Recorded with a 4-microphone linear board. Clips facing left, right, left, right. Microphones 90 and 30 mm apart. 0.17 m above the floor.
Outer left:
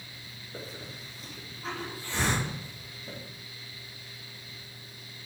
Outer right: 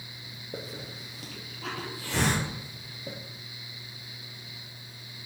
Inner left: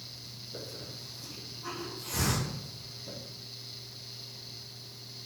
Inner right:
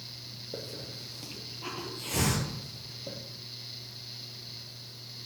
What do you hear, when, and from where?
0.5 s a hiss: 70° right (ahead or behind), 3.5 m